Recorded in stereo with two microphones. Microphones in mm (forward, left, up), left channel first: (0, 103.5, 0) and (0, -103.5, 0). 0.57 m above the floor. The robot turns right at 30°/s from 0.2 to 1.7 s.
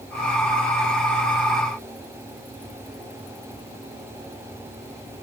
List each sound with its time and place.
Only background noise.